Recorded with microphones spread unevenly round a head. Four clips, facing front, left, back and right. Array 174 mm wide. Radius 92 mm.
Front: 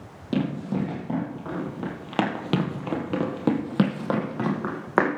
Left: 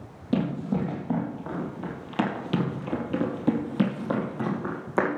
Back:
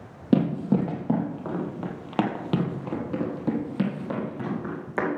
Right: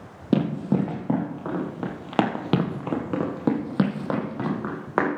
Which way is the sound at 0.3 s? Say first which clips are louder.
Right 4 dB, back 4 dB; 145° right.